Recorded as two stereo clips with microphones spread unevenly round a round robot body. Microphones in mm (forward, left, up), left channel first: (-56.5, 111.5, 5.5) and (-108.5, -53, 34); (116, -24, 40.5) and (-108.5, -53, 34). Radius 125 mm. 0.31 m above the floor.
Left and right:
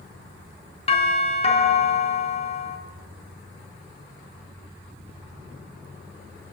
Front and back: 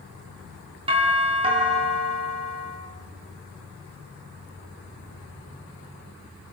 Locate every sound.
0.9 s a doorbell: 120° left, 4 m